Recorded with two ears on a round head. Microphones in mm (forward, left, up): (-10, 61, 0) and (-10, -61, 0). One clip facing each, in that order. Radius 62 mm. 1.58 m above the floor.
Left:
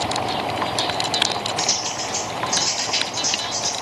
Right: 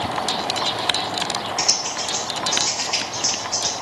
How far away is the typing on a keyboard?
About 2.0 m.